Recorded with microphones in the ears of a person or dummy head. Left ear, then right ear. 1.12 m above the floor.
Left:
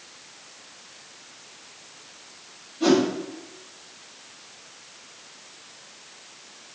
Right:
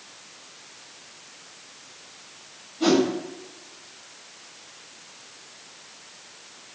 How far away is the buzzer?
No buzzer in this recording.